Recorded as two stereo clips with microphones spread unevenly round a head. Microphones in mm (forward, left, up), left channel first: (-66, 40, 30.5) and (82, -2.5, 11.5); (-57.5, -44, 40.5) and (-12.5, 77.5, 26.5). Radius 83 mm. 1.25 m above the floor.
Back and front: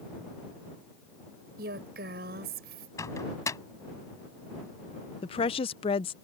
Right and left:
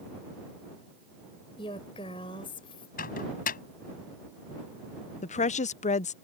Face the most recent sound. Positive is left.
turn(degrees=-140)